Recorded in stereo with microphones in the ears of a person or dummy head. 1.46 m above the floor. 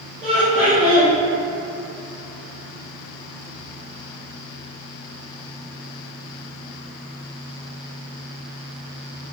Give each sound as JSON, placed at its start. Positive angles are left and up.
{"t": 0.2, "sound": "laughter", "side_deg": -5, "distance_m": 1.0}